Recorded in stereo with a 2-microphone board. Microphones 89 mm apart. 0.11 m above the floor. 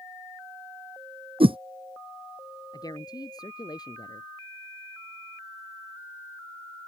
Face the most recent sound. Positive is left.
turn(degrees=45)  # may be behind; listen again after turning